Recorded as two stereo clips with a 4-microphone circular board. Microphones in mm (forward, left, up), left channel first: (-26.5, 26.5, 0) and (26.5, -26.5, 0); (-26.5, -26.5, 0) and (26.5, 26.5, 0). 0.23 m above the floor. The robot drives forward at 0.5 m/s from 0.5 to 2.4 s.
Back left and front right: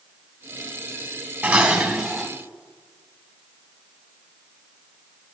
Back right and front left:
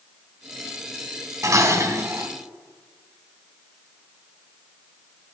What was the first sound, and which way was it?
Dishes clattering, 25° left.